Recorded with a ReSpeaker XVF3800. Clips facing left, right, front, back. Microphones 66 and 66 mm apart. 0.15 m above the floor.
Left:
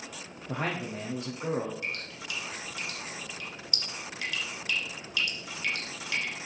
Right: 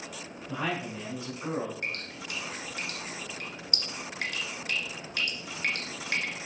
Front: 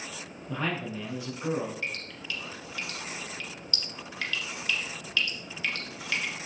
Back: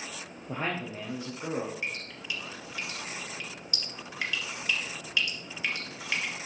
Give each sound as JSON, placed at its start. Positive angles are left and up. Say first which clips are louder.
{"t": 0.5, "sound": "a man speaking", "louder": "even, front 1 dB", "azimuth_deg": 125, "distance_m": 3.0}
{"t": 1.8, "sound": "dripping", "louder": "right 1 dB, even", "azimuth_deg": -110, "distance_m": 2.0}